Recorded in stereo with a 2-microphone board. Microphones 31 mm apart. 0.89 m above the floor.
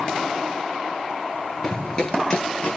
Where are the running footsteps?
20° left (ahead or behind), 0.9 m; by 2.8 s 30° left (ahead or behind), 1.0 m.